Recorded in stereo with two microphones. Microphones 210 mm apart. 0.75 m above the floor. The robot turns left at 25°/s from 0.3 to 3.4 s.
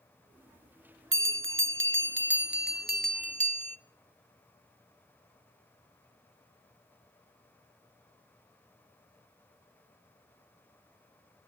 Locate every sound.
1.1 s a bell: 85° right, 0.7 m; by 3.8 s 145° right, 0.7 m